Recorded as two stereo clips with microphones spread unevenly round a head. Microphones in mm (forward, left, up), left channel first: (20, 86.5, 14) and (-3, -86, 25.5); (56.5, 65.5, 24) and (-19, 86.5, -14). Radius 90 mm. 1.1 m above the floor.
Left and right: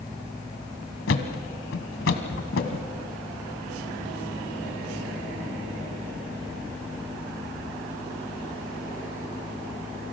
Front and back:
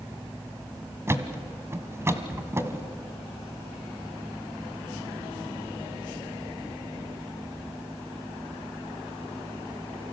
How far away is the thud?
About 1.7 m.